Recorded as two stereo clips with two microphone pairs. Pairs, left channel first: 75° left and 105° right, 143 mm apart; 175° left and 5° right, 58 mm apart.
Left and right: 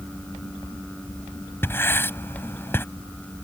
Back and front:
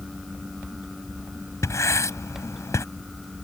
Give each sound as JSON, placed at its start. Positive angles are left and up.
{"t": 1.6, "sound": "writing", "azimuth_deg": 150}